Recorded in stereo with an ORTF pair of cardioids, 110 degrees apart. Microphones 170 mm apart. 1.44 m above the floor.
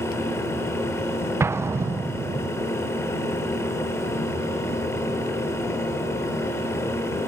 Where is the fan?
15° left, 2.5 m.